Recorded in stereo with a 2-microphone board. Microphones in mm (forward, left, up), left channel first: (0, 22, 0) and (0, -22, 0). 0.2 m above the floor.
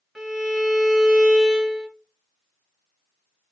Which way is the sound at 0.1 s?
5° right (ahead or behind).